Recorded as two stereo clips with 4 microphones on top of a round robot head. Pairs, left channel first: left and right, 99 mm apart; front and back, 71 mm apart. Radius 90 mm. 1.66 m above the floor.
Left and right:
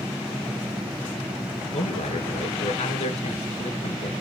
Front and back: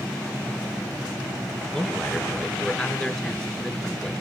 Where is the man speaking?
85° left, 2 m.